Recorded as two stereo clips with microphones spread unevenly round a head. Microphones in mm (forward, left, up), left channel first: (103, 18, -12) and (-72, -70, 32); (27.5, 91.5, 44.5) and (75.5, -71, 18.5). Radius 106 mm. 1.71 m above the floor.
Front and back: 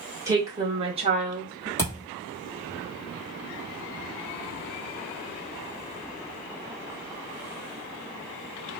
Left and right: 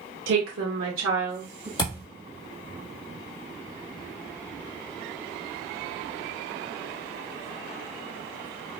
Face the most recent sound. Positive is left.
turn(degrees=115)